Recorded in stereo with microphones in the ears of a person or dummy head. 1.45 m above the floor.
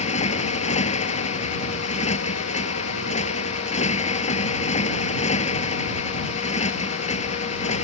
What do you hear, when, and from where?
0.0 s a motorcycle: 40° left (ahead or behind)